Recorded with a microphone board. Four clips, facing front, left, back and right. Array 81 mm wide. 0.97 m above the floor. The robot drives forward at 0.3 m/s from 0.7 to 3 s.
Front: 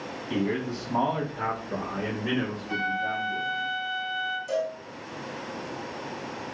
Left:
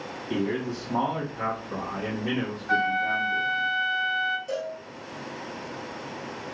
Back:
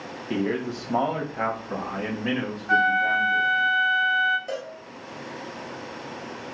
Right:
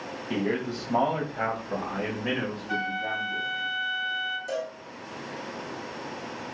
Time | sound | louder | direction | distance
0.3 | a man speaking | even, back 2 dB | 155° right | 1.3 m
2.7 | a flute | left 8 dB, back 10 dB | 145° left | 0.6 m
4.5 | a cowbell | left 1 dB, front 4 dB | 170° right | 0.8 m